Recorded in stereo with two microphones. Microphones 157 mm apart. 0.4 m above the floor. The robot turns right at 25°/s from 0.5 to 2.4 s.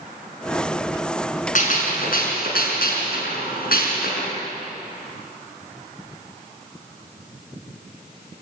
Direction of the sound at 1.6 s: 55° left (ahead or behind).